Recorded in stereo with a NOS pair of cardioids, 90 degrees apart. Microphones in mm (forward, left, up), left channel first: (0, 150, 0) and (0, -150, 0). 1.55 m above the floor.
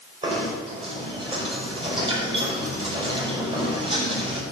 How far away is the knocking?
About 5.5 m.